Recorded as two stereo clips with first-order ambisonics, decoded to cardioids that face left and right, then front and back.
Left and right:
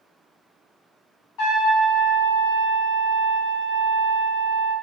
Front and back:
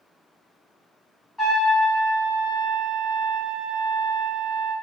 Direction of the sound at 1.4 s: 85° left.